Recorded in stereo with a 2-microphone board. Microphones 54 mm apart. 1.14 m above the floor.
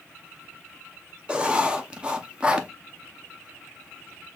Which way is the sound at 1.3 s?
20° right (ahead or behind).